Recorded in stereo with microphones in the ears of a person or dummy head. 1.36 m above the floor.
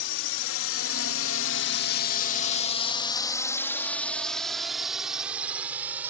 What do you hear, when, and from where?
0.0 s a drone: 70° left (ahead or behind); by 6.1 s 10° right (ahead or behind)